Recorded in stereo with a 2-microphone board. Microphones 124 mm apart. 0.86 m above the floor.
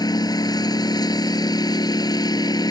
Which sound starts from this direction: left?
A lawn mower, at 0.0 s.